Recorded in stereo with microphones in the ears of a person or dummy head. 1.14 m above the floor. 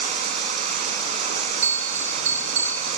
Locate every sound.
0.0 s running water: 45° right (ahead or behind), 2.5 m
1.6 s a bell: 45° right (ahead or behind), 1.2 m